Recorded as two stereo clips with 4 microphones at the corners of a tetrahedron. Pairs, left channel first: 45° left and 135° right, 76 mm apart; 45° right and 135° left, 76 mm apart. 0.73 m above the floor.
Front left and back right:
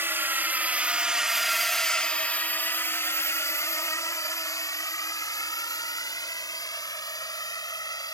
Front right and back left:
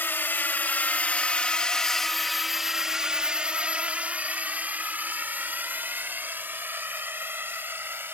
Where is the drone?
90° right; by 8.1 s 75° left.